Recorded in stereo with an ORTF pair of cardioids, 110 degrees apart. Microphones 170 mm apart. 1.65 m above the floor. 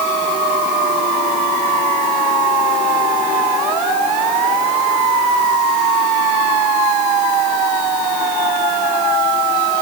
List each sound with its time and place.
Only background noise.